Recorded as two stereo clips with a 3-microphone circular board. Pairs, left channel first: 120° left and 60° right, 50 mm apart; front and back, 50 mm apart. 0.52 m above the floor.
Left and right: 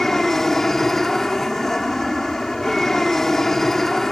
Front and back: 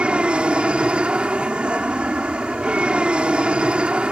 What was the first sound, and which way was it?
An aircraft, 170° right.